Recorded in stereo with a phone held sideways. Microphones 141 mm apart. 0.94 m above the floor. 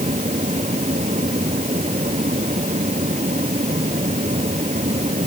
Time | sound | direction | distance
0.0 | a fan | 55° right (ahead or behind) | ?